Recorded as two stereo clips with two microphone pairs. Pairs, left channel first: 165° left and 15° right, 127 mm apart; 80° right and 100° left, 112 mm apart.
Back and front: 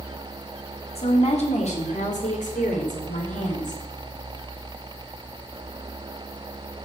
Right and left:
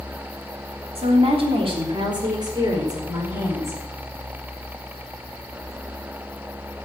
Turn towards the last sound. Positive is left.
turn(degrees=165)